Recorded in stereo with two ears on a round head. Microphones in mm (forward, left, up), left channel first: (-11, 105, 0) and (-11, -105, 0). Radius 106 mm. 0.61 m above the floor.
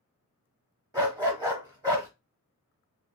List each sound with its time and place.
0.9 s a dog barking: 15° right (ahead or behind), 0.9 m